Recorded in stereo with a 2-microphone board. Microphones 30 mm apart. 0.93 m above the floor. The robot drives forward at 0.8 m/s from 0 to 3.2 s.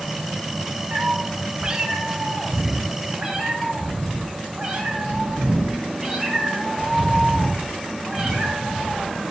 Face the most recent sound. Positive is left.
turn(degrees=-15)  # may be behind; listen again after turning